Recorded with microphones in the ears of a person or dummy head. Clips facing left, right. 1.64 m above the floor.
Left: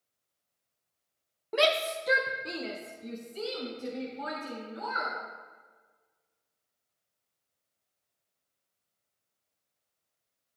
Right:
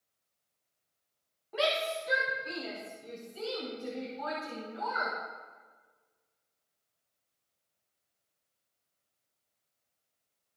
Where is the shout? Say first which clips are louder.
Left 4 dB; 75° left (ahead or behind), 1.0 m; by 5.1 s 40° left (ahead or behind), 4.5 m.